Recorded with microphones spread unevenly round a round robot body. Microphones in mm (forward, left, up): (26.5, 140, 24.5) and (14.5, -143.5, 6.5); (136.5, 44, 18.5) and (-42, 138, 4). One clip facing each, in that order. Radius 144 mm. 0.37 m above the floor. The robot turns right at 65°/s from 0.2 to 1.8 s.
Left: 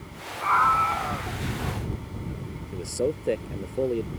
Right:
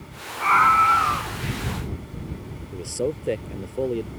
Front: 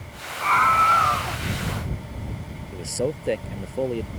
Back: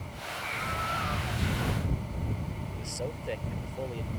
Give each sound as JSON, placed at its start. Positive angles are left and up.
{"t": 0.4, "sound": "a scream", "azimuth_deg": -70}
{"t": 2.7, "sound": "a man speaking", "azimuth_deg": -5}